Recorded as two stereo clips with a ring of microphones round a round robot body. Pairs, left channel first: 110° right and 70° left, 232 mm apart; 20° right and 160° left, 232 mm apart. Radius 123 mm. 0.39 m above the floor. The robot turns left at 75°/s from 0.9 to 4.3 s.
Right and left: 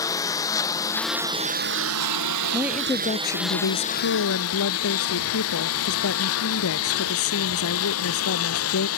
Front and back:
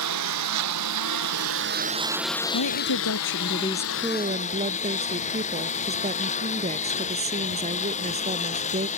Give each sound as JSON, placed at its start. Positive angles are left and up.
{"t": 0.0, "sound": "a lawn mower", "azimuth_deg": 170}
{"t": 2.5, "sound": "a woman speaking", "azimuth_deg": -5}